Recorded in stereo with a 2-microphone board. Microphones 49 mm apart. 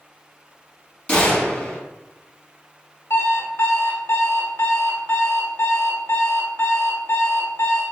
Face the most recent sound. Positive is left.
turn(degrees=65)  # may be behind; listen again after turning